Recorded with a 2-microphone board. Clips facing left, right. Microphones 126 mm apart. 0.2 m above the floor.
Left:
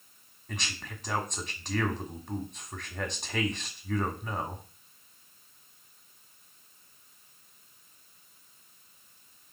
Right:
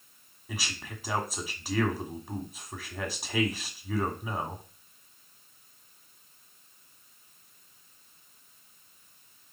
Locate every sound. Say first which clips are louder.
0.5 s a man speaking: right 1 dB; 5° right (ahead or behind), 1.4 m